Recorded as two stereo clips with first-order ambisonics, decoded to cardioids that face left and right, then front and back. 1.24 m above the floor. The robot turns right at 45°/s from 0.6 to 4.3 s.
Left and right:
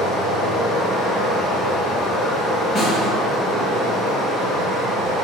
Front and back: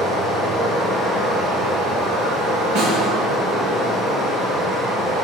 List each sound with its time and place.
0.0 s running water: 105° left, 1.4 m; by 5.2 s 90° right, 1.4 m
2.8 s a snare drum: 155° left, 1.8 m; by 3.1 s 170° left, 1.8 m